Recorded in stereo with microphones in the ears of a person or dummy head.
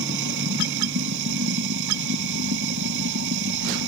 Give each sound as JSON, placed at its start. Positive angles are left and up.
{"t": 0.0, "sound": "running water", "side_deg": -65}